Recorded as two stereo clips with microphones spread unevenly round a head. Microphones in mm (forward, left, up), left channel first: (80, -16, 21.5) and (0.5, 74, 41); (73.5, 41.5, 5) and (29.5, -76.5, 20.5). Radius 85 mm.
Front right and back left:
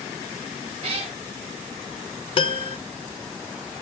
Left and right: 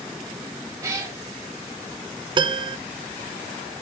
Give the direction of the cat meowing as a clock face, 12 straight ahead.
6 o'clock.